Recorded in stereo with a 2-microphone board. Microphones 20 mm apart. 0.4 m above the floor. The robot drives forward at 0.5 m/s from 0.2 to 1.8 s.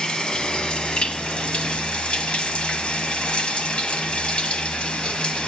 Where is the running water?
50° left (ahead or behind), 1.4 m; by 5.5 s 75° left (ahead or behind), 1.1 m.